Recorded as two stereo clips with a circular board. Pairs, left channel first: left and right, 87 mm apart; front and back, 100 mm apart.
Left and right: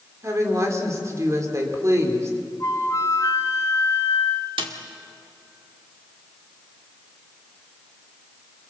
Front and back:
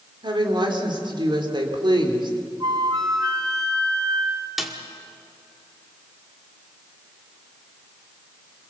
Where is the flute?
140° left, 1.5 m.